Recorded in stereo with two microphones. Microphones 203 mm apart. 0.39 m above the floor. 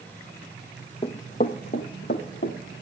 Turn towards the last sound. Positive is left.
turn(degrees=65)  # may be behind; listen again after turning